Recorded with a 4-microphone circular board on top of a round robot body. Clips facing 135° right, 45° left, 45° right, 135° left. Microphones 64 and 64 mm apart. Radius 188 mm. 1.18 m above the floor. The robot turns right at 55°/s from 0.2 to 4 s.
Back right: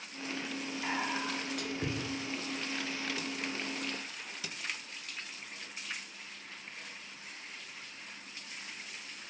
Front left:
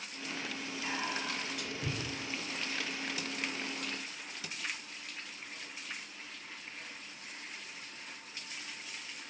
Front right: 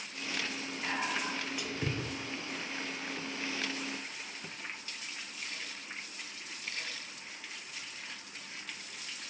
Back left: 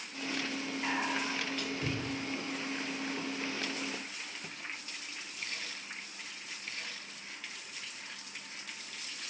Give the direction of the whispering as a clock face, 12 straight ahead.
5 o'clock.